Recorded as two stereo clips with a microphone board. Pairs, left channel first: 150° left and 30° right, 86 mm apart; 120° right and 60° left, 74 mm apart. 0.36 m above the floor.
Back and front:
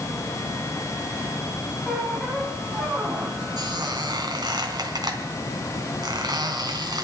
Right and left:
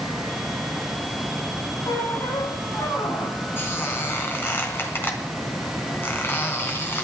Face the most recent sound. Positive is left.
turn(degrees=-65)